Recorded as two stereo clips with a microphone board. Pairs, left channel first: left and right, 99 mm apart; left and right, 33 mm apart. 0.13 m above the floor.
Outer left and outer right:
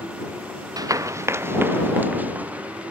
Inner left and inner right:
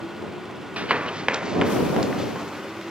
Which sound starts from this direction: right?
Running footsteps, at 0.8 s.